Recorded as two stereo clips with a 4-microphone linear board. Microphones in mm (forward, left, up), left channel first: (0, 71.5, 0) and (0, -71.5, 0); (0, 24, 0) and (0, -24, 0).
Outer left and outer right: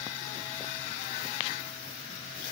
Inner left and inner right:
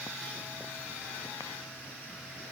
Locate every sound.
Only background noise.